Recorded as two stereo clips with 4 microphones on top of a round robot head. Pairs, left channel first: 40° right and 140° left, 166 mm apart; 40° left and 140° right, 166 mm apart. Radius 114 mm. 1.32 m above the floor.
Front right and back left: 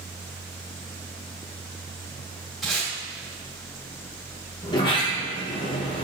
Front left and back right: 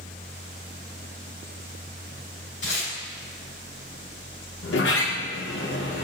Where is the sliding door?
25° left, 1.1 m.